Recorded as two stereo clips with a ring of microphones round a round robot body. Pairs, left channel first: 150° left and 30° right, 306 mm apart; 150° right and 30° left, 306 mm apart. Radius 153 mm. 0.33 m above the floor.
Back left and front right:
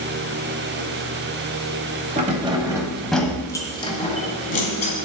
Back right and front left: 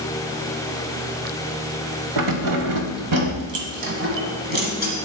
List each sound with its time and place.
2.2 s keys jangling: 30° left, 1.2 m; by 4.9 s 90° left, 2 m